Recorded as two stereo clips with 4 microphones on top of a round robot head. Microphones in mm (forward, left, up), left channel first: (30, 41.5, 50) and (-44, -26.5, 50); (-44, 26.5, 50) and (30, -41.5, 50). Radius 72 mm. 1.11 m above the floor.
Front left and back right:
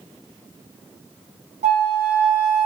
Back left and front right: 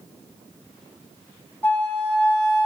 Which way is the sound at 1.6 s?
150° right.